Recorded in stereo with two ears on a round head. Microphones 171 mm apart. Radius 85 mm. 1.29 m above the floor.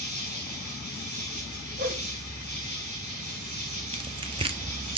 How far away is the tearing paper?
About 0.5 m.